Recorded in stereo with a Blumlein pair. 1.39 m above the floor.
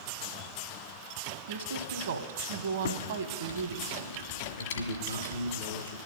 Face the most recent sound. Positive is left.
turn(degrees=70)